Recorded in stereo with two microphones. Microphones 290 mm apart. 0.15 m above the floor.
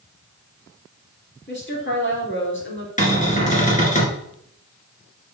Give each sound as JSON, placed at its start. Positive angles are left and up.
{"t": 1.5, "sound": "a woman speaking", "side_deg": 40, "distance_m": 3.5}
{"t": 3.0, "sound": "a cupboard door", "side_deg": 25, "distance_m": 2.5}